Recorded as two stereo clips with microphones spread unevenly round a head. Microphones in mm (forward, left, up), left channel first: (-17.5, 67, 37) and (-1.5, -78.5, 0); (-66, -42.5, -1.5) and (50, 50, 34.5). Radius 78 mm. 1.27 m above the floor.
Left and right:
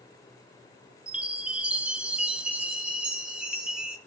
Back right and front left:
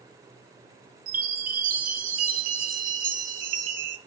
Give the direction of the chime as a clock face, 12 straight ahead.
12 o'clock.